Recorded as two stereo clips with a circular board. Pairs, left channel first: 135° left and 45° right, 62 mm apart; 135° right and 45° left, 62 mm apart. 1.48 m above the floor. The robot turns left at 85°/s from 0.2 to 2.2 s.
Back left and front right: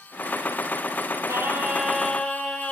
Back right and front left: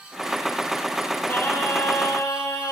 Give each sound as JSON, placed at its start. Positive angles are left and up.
{"t": 1.3, "sound": "singing", "azimuth_deg": -80, "distance_m": 1.7}